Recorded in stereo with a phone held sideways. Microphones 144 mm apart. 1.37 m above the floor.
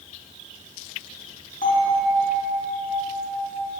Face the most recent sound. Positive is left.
turn(degrees=65)  # may be behind; listen again after turning